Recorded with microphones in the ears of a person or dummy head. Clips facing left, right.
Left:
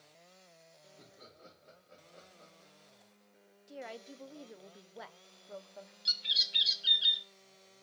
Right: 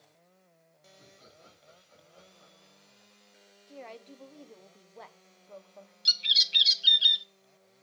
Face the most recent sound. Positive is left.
turn(degrees=-35)  # may be behind; listen again after turning